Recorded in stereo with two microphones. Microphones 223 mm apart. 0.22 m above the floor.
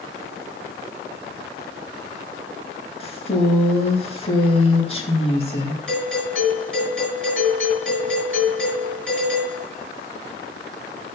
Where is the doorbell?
65° right (ahead or behind), 6 m.